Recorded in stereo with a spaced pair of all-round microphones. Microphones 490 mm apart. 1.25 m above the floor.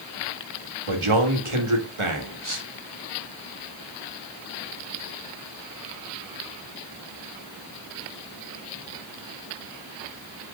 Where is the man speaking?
80° right, 2 m.